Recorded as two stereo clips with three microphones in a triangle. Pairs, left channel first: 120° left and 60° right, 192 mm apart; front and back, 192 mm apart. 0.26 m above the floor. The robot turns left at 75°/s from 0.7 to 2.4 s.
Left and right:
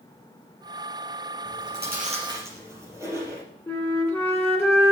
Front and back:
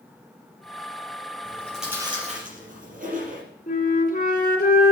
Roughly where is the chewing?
Ahead right.